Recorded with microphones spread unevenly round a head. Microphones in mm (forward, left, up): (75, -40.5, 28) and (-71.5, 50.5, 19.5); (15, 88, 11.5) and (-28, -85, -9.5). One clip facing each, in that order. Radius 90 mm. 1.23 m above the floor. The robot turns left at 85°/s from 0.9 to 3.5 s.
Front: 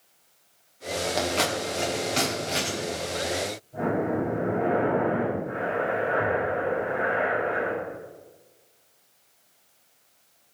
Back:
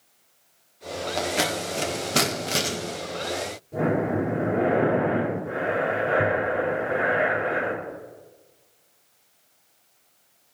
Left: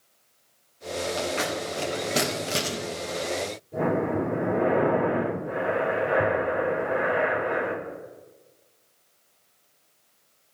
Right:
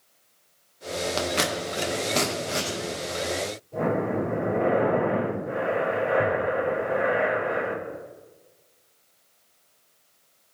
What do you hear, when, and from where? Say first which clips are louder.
1.2 s scissors: back 2 dB, right 1 dB; 120° right, 1.7 m; by 2.8 s 105° left, 1.7 m
3.7 s breathing: back 3 dB, left 1 dB; 145° left, 3.5 m